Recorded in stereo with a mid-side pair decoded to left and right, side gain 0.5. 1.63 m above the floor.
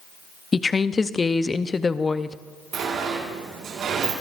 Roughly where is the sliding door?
Ahead right.